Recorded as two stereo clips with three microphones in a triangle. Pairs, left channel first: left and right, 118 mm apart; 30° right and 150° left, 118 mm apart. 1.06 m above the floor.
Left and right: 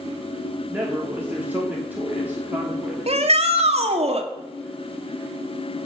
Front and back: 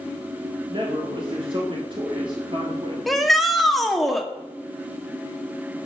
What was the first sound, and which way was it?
A man speaking, 165° right.